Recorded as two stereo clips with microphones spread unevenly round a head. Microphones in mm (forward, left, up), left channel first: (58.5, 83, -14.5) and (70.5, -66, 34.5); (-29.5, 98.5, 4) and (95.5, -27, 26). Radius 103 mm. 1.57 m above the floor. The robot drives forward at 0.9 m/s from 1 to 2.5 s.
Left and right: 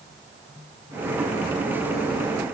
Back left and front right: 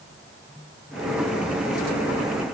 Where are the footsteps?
No footsteps in this recording.